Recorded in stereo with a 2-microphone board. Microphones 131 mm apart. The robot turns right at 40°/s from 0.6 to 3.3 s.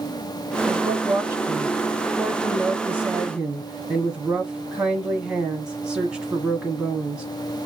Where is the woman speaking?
20° right (ahead or behind), 1.1 m; by 7.2 s 5° right (ahead or behind), 1.1 m.